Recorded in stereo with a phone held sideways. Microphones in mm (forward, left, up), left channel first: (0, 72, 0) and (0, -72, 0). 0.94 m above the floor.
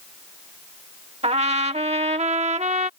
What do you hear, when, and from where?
1.2 s a trumpet: 45° right (ahead or behind)